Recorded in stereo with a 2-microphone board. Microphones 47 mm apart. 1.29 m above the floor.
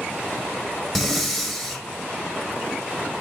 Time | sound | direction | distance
0.9 | breathing | centre (ahead or behind) | 0.7 m